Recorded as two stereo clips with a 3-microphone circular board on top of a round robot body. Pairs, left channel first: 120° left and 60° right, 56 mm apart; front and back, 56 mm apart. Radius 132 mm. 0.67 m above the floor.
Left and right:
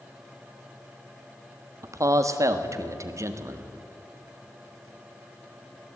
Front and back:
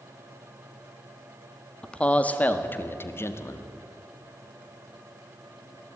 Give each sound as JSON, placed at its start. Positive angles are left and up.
{"t": 1.8, "sound": "a man speaking", "azimuth_deg": -75, "distance_m": 1.8}